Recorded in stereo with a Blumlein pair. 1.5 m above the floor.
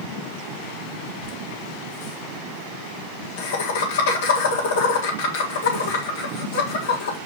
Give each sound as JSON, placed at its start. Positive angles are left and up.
{"t": 1.2, "sound": "laughter", "azimuth_deg": 65, "distance_m": 1.8}